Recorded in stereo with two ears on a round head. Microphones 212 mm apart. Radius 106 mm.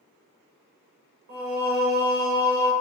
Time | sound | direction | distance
1.3 | singing | 40° right (ahead or behind) | 0.9 m